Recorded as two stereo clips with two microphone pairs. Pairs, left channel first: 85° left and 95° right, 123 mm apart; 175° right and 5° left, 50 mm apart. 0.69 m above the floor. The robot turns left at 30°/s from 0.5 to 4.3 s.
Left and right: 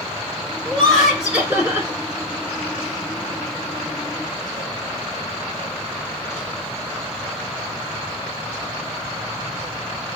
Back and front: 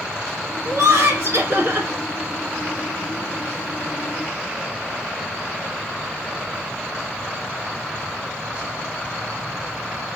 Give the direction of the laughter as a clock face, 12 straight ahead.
12 o'clock.